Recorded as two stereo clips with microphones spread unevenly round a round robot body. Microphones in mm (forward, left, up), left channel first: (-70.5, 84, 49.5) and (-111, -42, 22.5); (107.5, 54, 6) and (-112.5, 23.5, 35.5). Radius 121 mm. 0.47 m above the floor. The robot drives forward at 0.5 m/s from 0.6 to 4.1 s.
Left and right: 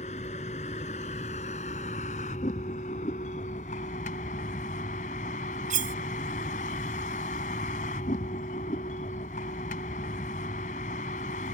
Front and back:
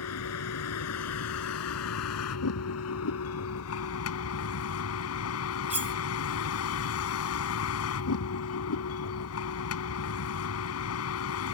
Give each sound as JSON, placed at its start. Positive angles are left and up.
{"t": 0.0, "sound": "a vehicle", "azimuth_deg": 15}
{"t": 5.7, "sound": "cutlery clinking", "azimuth_deg": -85}